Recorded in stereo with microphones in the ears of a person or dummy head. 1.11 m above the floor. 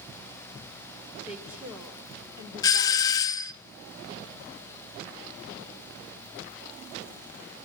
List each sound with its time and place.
1.3 s a woman speaking: 5° right (ahead or behind), 3.5 m; by 3.3 s 25° right (ahead or behind), 3 m
2.6 s a doorbell: 15° left (ahead or behind), 0.6 m